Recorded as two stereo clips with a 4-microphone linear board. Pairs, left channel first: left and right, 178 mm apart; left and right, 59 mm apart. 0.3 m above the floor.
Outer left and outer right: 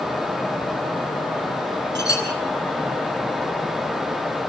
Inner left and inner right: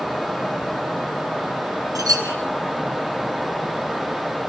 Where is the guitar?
I don't hear a guitar.